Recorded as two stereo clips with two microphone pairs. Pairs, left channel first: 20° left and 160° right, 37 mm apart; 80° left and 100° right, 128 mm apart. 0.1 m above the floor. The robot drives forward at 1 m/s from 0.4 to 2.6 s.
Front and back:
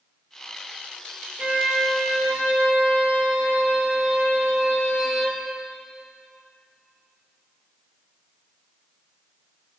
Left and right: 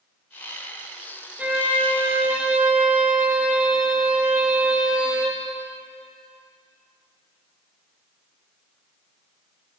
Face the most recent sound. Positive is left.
turn(degrees=180)